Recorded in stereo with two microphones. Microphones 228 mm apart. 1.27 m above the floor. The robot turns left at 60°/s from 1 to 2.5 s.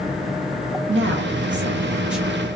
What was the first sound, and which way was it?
A woman speaking, 105° right.